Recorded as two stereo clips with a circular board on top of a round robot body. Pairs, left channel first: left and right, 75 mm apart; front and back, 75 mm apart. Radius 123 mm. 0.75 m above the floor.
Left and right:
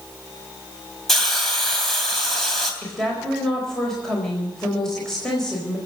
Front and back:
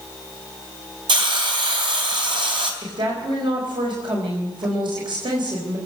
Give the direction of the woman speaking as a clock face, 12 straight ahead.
6 o'clock.